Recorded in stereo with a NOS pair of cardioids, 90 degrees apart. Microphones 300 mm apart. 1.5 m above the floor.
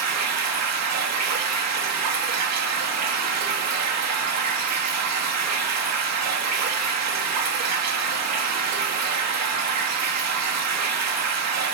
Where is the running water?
60° right, 3 m.